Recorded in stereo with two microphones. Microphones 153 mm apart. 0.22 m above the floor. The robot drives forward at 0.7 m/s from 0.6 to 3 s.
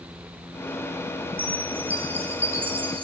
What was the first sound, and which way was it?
A chime, 10° right (ahead or behind).